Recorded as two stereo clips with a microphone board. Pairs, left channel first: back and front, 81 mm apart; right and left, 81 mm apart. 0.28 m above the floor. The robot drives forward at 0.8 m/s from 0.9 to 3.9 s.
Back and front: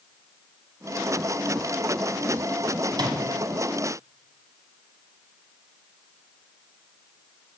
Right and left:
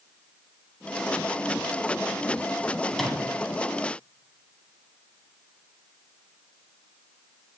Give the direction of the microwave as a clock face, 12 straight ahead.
12 o'clock.